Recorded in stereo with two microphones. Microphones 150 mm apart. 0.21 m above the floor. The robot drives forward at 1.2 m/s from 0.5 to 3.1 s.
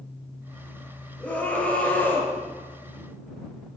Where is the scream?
10° left (ahead or behind), 4 m; by 2.3 s 15° left (ahead or behind), 2.5 m.